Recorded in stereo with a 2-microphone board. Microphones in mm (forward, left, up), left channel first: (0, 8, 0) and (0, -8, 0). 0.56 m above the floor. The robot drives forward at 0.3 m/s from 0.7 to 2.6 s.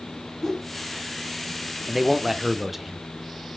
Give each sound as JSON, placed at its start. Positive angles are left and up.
{"t": 0.4, "sound": "a whoosh", "side_deg": 5, "distance_m": 3.5}
{"t": 1.9, "sound": "a man speaking", "side_deg": -20, "distance_m": 0.9}